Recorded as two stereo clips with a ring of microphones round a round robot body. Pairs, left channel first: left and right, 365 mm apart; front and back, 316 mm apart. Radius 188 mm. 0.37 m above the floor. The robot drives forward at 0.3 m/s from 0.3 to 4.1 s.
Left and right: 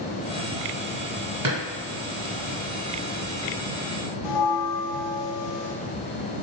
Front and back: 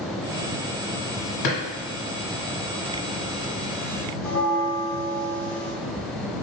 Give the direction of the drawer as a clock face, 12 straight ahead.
12 o'clock.